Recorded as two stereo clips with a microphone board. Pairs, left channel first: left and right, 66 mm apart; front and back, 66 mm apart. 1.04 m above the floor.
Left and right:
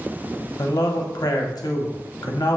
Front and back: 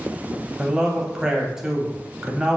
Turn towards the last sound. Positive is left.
turn(degrees=100)